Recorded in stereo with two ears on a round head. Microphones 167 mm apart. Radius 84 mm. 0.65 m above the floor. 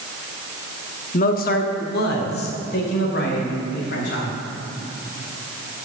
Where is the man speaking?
45° left (ahead or behind), 0.8 m; by 4.3 s 65° left (ahead or behind), 3 m.